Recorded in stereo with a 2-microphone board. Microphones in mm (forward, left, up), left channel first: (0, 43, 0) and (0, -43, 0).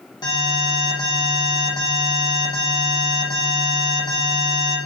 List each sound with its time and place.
0.2 s an alarm: 50° left (ahead or behind), 8 m